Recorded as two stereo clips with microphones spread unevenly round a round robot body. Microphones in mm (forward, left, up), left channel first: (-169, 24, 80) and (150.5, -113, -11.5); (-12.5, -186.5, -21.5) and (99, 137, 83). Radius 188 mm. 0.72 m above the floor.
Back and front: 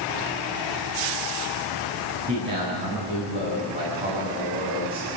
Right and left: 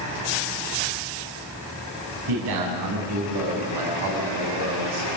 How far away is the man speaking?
About 6 m.